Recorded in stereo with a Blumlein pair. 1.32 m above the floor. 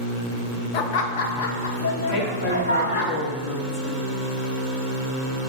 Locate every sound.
0.7 s laughter: 40° left, 0.8 m; by 3.1 s 70° left, 2.0 m
2.1 s a woman speaking: 45° left, 1.6 m